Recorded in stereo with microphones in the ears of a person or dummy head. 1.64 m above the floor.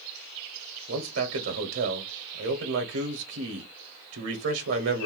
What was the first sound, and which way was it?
A man speaking, 75° right (ahead or behind).